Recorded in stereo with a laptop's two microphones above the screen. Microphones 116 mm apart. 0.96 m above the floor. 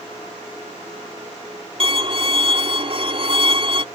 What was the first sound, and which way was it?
A violin, 50° right (ahead or behind).